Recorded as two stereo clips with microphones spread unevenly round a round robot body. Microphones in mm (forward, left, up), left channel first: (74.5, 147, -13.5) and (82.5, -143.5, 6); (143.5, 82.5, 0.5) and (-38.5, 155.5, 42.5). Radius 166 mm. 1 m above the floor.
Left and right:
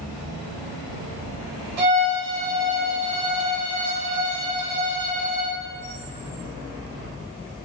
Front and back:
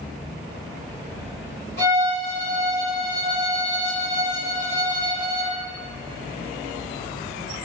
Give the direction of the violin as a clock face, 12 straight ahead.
3 o'clock.